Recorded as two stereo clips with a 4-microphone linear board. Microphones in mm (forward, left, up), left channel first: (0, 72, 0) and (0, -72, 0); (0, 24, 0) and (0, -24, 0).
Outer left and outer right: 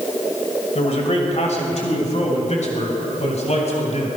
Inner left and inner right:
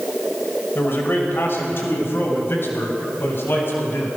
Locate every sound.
0.8 s a man speaking: 55° left (ahead or behind), 2 m